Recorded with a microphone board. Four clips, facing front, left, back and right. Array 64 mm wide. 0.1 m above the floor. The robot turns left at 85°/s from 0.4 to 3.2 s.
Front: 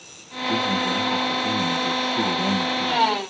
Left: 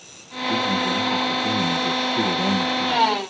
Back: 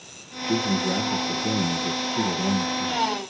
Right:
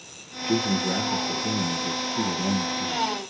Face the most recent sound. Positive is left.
turn(degrees=20)